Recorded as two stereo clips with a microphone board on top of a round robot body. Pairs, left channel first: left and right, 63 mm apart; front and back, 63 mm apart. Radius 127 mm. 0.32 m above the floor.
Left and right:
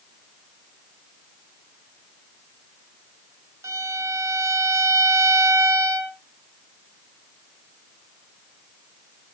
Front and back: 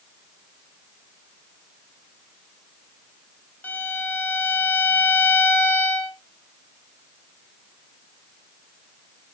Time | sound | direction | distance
3.6 | a violin | 55° right | 1.8 m